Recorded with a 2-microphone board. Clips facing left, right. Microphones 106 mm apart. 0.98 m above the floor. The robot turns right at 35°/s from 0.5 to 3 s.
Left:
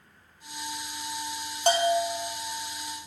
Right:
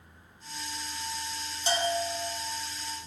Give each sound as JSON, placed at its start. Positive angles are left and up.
{"t": 1.7, "sound": "a bell", "side_deg": 55, "distance_m": 1.8}